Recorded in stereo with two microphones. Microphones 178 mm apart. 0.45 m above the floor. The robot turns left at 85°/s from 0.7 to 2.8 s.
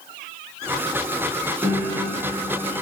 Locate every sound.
1.6 s a piano: 10° right, 4 m; by 2.8 s 110° right, 4 m